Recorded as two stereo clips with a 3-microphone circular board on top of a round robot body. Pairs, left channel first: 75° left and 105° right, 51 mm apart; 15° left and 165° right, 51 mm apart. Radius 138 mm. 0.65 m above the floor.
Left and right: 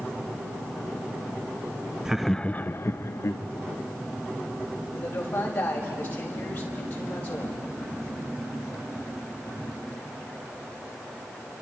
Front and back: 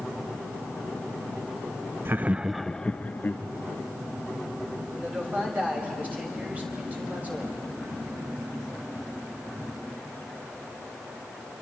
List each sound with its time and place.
2.0 s laughter: straight behind, 0.7 m; by 3.4 s 65° left, 1.3 m
4.9 s a man speaking: 135° left, 5.5 m